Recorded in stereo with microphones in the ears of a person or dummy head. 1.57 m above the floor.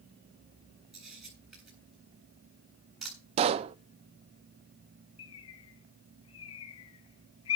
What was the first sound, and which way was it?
A camera shutter, 5° right (ahead or behind).